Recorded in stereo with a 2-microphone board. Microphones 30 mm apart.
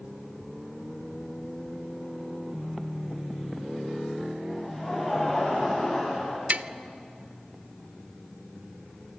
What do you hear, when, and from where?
4.5 s laughter: 10° left (ahead or behind), 5 m; by 6.4 s 25° left (ahead or behind), 5 m
6.5 s tapping: 55° right (ahead or behind), 0.5 m